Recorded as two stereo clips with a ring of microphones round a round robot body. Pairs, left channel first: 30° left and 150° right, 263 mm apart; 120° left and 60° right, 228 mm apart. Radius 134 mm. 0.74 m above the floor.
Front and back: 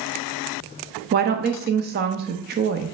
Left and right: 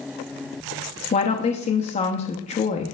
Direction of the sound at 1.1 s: 170° left.